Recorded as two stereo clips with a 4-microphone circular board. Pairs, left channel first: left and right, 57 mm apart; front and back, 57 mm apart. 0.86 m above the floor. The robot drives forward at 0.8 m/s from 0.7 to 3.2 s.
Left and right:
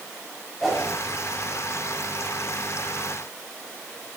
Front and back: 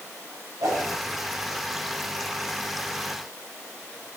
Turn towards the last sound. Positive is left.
turn(degrees=180)